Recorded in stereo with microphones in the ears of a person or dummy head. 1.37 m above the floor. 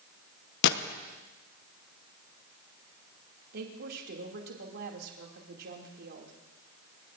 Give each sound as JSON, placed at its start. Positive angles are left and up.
{"t": 0.6, "sound": "a gunshot", "side_deg": 65, "distance_m": 0.9}
{"t": 3.5, "sound": "a woman speaking", "side_deg": -60, "distance_m": 2.5}